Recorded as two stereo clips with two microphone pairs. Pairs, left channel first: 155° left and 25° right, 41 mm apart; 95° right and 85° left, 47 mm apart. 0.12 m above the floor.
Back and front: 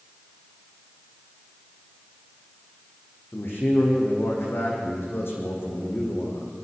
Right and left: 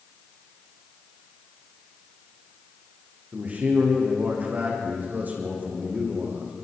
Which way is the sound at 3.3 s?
140° left.